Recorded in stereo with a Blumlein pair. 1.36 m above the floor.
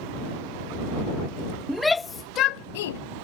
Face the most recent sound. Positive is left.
turn(degrees=60)